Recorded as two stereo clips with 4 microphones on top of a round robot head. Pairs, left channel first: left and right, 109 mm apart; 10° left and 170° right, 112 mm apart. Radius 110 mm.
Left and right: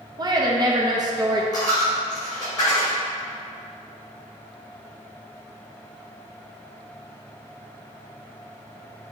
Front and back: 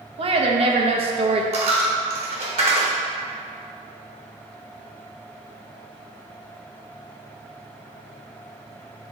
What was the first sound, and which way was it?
A woman speaking, 140° right.